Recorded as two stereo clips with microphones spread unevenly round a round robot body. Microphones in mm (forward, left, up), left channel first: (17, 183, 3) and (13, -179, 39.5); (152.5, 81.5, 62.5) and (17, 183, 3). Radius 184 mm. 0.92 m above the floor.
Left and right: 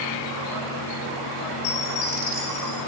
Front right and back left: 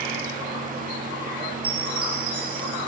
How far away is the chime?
About 5 m.